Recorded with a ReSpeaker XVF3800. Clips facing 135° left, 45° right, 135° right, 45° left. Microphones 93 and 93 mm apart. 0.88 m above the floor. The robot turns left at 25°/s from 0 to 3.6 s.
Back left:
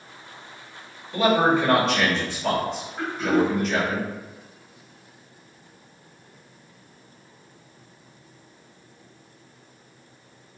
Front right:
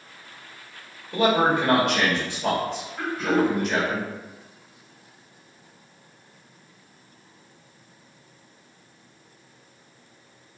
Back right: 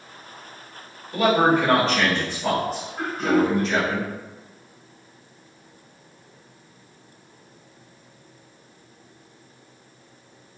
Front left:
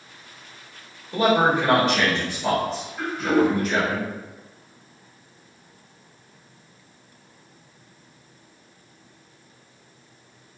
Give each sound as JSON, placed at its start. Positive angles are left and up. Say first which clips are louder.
{"t": 1.1, "sound": "a man speaking", "louder": "back left 1 dB, back right 1 dB", "azimuth_deg": -15, "distance_m": 1.3}
{"t": 3.0, "sound": "throat clearing", "louder": "even, even", "azimuth_deg": -165, "distance_m": 1.3}